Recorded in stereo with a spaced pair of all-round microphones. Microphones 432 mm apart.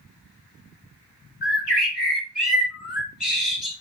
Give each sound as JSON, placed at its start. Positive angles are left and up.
{"t": 1.4, "sound": "a bird", "side_deg": 65, "distance_m": 2.0}